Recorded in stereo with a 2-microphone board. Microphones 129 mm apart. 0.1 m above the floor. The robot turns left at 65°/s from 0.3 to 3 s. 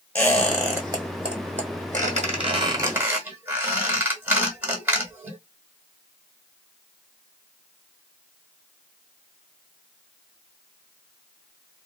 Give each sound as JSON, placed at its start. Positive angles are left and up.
{"t": 0.1, "sound": "a squeak", "side_deg": 10, "distance_m": 1.3}